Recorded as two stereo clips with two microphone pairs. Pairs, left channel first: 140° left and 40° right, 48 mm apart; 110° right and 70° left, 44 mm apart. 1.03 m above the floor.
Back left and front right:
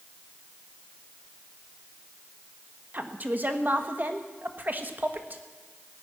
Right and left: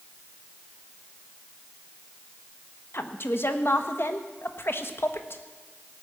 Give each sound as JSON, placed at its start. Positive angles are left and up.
{"t": 2.9, "sound": "a woman speaking", "azimuth_deg": -90, "distance_m": 1.1}